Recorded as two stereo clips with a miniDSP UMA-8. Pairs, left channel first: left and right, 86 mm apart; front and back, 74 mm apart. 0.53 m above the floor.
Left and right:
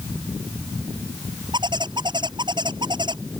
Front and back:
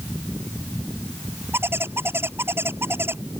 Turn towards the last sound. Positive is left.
turn(degrees=-120)